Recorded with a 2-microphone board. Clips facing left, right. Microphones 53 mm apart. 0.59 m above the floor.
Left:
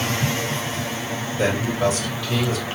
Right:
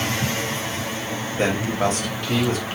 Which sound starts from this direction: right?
A man speaking, at 1.4 s.